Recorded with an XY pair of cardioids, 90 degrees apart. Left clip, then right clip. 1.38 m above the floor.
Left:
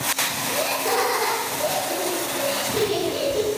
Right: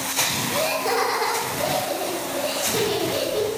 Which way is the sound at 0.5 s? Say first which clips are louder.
Even; straight ahead.